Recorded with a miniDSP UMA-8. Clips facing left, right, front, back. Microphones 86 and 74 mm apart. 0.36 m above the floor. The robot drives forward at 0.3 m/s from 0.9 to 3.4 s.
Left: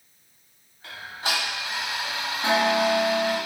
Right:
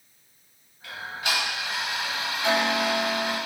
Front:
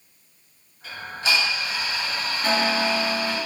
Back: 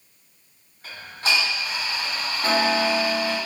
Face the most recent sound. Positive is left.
turn(degrees=145)